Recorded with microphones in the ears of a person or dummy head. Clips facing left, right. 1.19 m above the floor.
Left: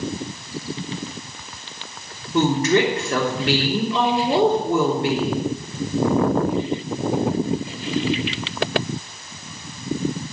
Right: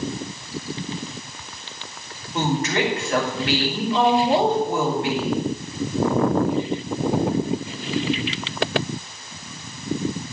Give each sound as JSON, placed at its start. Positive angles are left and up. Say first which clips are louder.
{"t": 2.3, "sound": "a woman speaking", "louder": "left 5 dB", "side_deg": 80, "distance_m": 3.5}